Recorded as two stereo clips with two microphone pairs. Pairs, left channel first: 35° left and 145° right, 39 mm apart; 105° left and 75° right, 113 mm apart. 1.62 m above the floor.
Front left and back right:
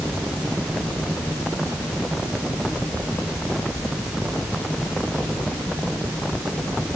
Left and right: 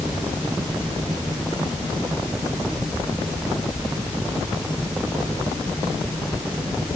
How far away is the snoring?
No snoring in this recording.